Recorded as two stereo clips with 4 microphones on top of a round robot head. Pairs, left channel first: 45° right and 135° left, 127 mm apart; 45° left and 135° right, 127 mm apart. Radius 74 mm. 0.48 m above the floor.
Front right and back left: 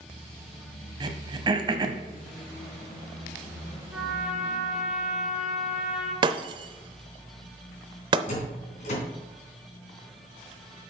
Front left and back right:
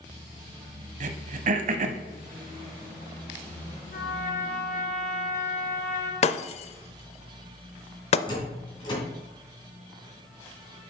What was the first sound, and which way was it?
Throat clearing, 165° right.